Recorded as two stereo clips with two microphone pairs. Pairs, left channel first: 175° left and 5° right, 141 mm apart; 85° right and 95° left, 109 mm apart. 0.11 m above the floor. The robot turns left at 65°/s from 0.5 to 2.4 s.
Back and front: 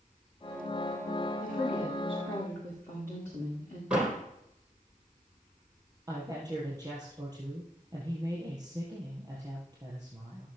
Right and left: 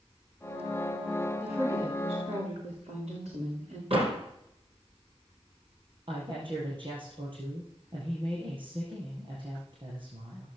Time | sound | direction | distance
1.4 | a woman speaking | 165° left | 8.5 m
3.9 | a door slam | 75° left | 3 m
6.1 | a woman speaking | 60° left | 7 m